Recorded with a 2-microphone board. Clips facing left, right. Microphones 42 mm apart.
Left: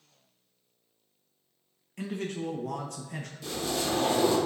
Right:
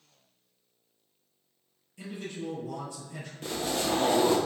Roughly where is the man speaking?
Left.